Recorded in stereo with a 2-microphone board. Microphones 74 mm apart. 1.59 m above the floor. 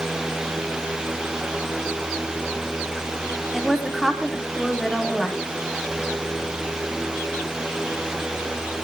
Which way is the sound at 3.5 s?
Centre (ahead or behind).